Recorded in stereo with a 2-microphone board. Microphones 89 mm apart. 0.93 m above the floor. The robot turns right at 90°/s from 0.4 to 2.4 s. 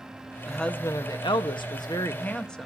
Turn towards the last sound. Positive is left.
turn(degrees=170)